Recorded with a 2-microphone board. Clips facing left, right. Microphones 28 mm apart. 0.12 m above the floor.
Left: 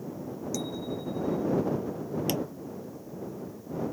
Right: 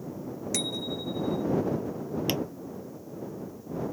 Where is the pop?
25° right (ahead or behind).